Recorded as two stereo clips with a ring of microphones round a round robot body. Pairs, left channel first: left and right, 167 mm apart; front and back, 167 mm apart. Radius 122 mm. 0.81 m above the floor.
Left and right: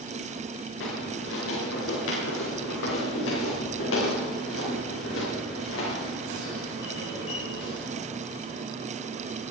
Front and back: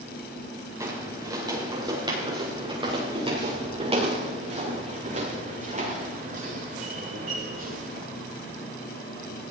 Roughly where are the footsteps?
Left.